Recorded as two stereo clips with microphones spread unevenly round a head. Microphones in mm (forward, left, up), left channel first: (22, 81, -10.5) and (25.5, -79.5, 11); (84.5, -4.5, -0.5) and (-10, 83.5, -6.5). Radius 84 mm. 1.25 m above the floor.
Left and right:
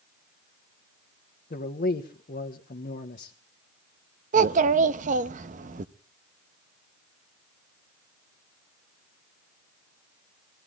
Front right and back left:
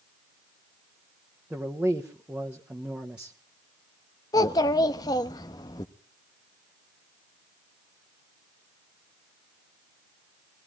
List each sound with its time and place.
1.5 s a man speaking: 55° left, 1.2 m
4.3 s a child speaking: 100° right, 0.7 m